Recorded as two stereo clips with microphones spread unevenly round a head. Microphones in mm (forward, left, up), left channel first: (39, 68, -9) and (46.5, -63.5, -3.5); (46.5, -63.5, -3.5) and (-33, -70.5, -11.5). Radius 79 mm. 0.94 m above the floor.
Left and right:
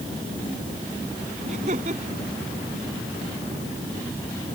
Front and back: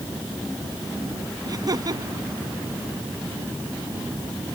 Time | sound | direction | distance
1.4 | laughter | 135° right | ?